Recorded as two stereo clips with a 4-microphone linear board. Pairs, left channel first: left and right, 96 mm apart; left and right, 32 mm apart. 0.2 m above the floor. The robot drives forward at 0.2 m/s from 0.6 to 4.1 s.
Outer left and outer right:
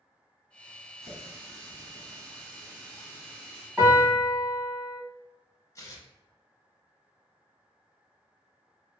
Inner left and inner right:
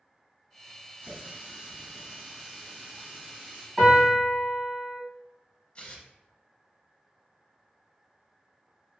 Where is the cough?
I don't hear a cough.